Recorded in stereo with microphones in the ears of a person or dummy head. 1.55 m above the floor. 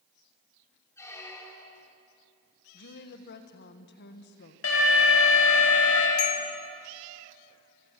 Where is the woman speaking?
55° left (ahead or behind), 1.7 m.